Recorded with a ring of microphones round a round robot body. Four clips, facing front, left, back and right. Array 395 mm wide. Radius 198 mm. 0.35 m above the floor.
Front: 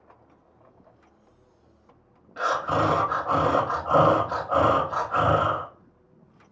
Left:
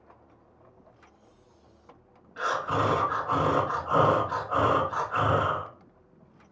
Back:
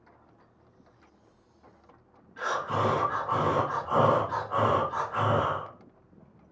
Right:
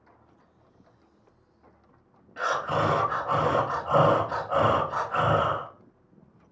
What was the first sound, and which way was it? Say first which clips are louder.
Breathing: right 1 dB, front 5 dB; 20° right.